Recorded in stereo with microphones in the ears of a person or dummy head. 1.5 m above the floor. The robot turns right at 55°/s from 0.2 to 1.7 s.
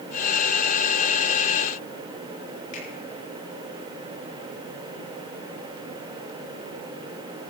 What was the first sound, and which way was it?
A finger snap, 50° left (ahead or behind).